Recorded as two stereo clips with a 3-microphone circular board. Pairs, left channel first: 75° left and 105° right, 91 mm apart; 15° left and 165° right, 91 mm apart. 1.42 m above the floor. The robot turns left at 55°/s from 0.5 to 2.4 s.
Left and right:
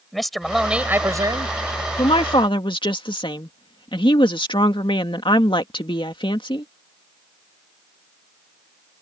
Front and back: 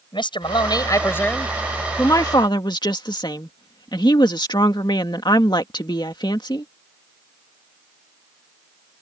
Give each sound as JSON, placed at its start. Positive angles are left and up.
{"t": 0.1, "sound": "a man speaking", "azimuth_deg": -15}
{"t": 2.0, "sound": "a woman speaking", "azimuth_deg": 75}